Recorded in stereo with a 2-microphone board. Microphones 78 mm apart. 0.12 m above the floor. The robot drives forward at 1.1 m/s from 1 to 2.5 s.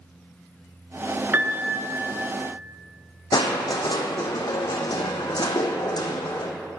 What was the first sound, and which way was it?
A piano, 30° right (ahead or behind).